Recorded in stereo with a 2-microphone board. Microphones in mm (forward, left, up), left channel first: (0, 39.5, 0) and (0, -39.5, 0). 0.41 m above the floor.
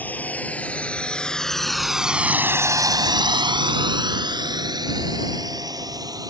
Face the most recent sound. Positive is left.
turn(degrees=-50)  # may be behind; listen again after turning